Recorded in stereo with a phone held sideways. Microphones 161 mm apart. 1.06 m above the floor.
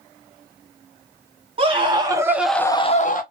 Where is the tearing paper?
I don't hear tearing paper.